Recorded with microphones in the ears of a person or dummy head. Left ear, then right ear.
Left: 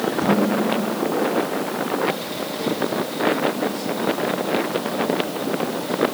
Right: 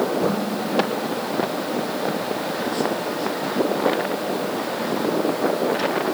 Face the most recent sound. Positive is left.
turn(degrees=45)  # may be behind; listen again after turning